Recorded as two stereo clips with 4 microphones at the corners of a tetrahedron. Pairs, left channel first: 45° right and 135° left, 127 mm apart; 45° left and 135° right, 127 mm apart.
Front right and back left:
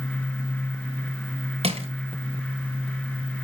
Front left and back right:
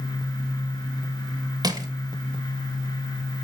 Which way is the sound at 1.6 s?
170° left.